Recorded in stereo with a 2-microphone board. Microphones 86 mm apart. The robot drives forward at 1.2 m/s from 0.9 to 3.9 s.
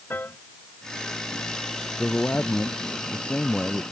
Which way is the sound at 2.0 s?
20° left (ahead or behind).